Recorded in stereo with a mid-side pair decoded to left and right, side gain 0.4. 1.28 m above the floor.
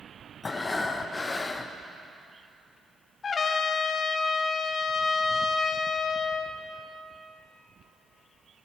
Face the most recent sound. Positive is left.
turn(degrees=50)